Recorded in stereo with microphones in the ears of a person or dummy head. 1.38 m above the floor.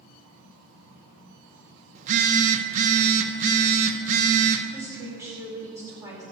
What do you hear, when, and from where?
1.9 s a phone buzzing: 50° right (ahead or behind), 1.3 m
4.7 s a woman speaking: 10° right (ahead or behind), 5 m